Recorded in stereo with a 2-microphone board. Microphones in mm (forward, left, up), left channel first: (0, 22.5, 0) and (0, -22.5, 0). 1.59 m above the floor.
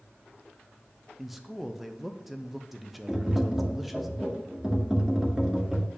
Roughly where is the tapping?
Centre.